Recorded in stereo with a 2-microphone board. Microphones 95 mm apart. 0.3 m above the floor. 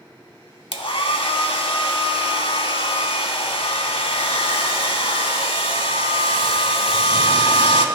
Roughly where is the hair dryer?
Left.